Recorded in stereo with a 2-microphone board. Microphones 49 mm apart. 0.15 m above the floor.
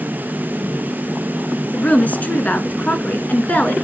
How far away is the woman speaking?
About 1.7 m.